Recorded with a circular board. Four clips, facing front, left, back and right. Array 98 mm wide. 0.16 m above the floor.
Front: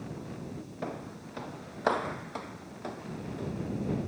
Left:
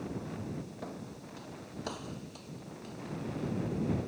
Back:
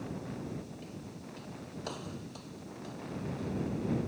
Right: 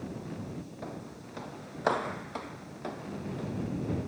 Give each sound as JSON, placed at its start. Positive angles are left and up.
{"t": 0.8, "sound": "footsteps", "azimuth_deg": -5}